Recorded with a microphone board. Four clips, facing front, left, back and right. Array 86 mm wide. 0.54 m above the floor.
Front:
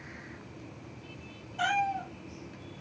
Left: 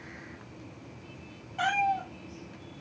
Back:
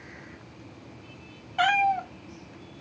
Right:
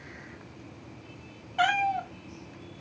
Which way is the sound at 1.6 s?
155° right.